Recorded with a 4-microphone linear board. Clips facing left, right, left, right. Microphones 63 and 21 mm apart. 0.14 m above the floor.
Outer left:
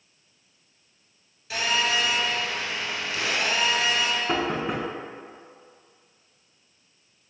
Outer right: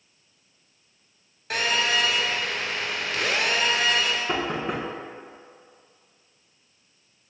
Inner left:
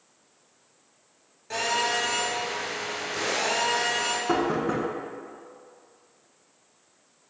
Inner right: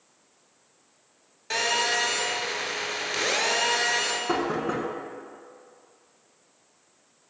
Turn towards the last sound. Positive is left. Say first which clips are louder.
# outer left 1 dB, inner left 2 dB
turn(degrees=0)  # may be behind; listen again after turning